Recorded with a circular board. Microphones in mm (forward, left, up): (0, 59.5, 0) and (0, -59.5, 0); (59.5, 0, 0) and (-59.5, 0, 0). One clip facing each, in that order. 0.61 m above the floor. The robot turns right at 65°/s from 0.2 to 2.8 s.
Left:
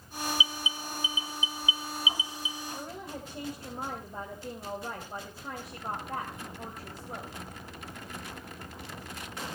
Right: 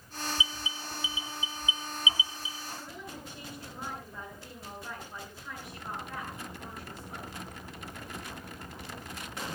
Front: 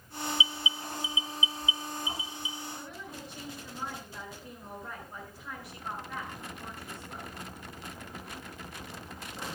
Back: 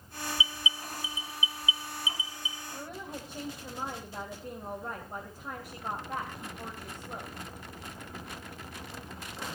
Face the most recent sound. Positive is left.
turn(degrees=130)